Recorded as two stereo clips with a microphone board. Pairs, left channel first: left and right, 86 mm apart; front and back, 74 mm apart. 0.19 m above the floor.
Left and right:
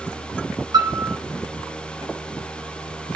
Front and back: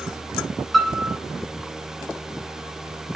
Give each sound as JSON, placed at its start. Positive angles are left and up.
{"t": 0.7, "sound": "a piano", "azimuth_deg": -85, "distance_m": 1.7}